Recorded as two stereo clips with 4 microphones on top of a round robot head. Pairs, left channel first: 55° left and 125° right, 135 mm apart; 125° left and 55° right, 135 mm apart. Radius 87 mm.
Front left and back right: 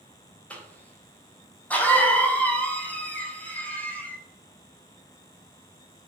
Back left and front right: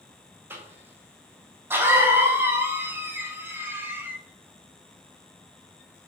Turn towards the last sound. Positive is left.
turn(degrees=-5)